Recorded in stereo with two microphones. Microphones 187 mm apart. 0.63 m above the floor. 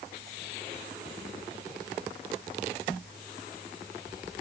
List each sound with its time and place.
Only background noise.